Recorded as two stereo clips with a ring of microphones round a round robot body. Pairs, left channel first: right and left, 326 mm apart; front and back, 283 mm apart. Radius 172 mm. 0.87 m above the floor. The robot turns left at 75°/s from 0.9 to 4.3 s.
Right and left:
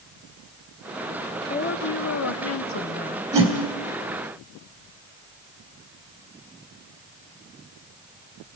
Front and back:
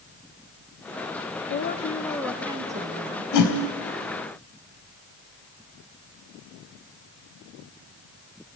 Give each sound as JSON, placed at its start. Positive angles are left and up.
{"t": 1.5, "sound": "a woman speaking", "azimuth_deg": -30, "distance_m": 1.1}
{"t": 3.3, "sound": "a whoosh", "azimuth_deg": 20, "distance_m": 3.0}